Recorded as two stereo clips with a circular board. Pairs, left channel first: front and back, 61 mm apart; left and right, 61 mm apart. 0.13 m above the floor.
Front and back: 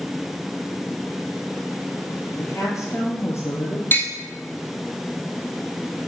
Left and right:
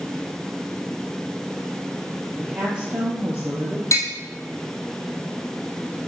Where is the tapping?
55° left, 1.3 m.